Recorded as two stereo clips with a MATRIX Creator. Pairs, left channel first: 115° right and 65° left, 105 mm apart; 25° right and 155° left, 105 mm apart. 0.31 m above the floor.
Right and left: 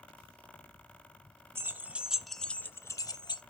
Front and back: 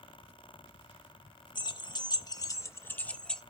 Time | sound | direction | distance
1.6 | keys jangling | 5° left | 0.8 m